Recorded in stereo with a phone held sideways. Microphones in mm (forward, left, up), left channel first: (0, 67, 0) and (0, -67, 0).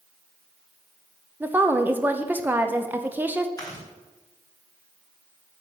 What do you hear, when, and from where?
1.4 s a woman speaking: 15° right (ahead or behind), 0.8 m
3.6 s chewing: 25° left (ahead or behind), 4.5 m